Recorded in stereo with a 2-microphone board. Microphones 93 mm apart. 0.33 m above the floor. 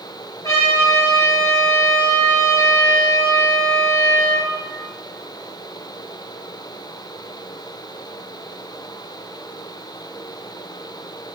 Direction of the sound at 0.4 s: 40° left (ahead or behind).